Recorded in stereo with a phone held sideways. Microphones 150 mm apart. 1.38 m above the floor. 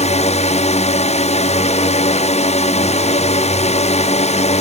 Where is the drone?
50° left (ahead or behind).